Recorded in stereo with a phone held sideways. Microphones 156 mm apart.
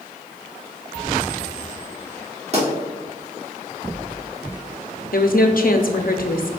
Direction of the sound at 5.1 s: 65° left (ahead or behind).